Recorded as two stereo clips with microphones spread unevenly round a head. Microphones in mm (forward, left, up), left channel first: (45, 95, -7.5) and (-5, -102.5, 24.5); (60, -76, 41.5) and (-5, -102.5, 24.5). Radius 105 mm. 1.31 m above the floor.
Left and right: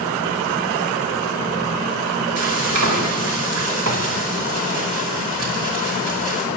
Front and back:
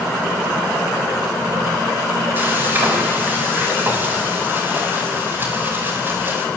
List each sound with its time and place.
2.4 s frying: 95° right, 10 m